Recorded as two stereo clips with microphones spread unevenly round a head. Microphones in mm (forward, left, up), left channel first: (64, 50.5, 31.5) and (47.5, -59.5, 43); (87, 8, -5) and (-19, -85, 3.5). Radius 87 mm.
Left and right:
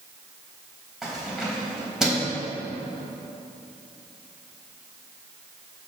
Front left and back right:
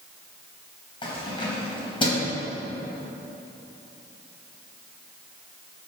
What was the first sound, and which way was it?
Keys jangling, 15° right.